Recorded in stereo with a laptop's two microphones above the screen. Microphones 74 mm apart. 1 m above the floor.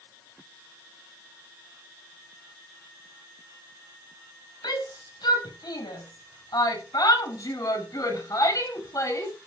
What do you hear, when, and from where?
4.6 s a shout: 75° left (ahead or behind), 5.5 m; by 9.3 s 45° left (ahead or behind), 5 m